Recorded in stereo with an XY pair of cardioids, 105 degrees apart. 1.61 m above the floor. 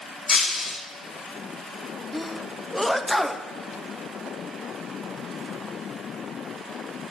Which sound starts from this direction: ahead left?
Breaking glass, at 0.3 s.